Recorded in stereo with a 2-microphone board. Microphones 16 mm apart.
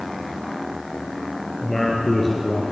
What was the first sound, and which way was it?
A man speaking, 15° left (ahead or behind).